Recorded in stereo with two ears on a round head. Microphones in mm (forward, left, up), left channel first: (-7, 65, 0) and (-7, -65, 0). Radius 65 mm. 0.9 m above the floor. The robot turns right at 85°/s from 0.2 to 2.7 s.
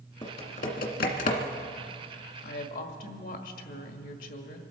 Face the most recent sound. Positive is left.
turn(degrees=65)  # may be behind; listen again after turning